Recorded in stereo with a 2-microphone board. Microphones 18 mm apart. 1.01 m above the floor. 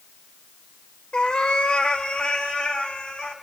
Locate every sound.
1.1 s a cat meowing: 70° left (ahead or behind), 2.0 m; by 3.3 s 80° left, 4 m